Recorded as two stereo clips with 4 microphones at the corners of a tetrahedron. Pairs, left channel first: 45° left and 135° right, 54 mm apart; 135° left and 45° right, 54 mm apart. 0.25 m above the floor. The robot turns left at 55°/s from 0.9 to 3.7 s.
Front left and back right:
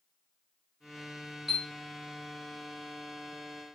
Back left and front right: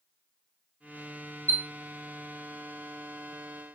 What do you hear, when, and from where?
1.5 s a chime: 50° right, 0.7 m; by 1.6 s 60° right, 0.7 m